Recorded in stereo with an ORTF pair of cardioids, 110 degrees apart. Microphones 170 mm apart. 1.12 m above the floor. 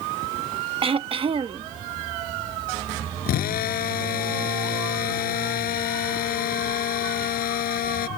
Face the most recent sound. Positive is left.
turn(degrees=65)